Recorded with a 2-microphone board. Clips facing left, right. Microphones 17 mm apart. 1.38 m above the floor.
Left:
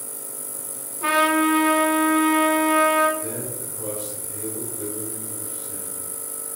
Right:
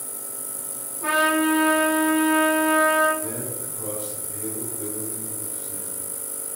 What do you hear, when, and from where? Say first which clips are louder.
1.0 s a trumpet: left 2 dB; 50° left (ahead or behind), 1.9 m
3.2 s a man speaking: even; 40° left (ahead or behind), 3.5 m